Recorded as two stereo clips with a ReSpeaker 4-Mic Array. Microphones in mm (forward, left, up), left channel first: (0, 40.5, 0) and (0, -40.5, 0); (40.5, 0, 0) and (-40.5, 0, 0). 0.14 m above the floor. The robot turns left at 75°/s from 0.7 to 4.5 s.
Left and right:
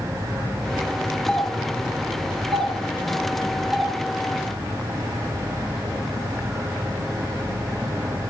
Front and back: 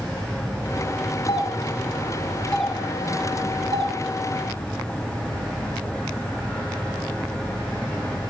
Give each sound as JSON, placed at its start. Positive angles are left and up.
{"t": 1.3, "sound": "a doorbell", "azimuth_deg": 10, "distance_m": 5.0}